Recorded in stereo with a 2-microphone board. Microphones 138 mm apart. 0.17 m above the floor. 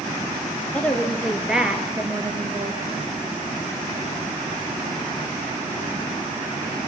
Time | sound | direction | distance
0.7 | a woman speaking | 10° left (ahead or behind) | 3 m